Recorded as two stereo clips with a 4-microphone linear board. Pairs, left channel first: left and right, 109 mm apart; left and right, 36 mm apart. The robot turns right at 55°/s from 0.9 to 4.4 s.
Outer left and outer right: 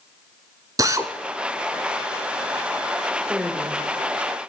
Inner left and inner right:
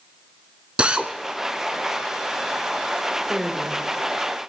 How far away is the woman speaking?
About 2.5 m.